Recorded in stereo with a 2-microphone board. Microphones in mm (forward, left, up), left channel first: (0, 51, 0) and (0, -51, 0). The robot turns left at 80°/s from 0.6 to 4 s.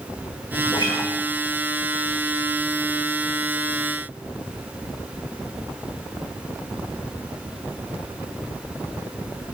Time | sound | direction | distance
0.7 | a guitar | 55° left | 1.9 m